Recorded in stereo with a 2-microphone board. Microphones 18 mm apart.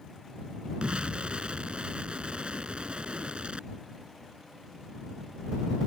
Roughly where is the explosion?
Right.